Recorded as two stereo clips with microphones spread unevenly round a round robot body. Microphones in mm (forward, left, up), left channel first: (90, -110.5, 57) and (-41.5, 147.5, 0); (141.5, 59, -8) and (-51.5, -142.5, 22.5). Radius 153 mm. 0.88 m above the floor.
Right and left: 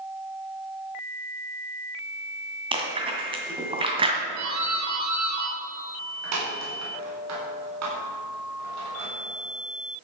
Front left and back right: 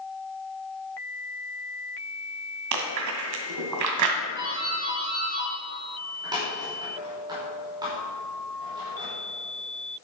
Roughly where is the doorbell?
Behind left.